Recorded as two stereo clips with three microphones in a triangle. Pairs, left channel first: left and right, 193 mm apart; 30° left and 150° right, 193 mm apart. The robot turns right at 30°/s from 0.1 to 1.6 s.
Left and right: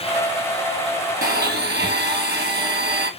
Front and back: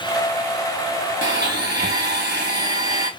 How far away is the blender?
About 0.7 m.